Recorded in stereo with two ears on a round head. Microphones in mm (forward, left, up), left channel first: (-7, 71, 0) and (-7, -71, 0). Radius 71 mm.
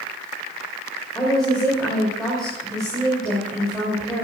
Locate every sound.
1.1 s a woman speaking: centre (ahead or behind), 4 m